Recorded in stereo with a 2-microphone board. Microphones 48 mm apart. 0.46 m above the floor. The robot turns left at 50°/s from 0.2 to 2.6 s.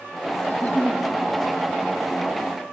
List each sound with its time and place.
0.5 s a giggle: 40° left (ahead or behind), 1.2 m; by 1.0 s 20° left (ahead or behind), 1.2 m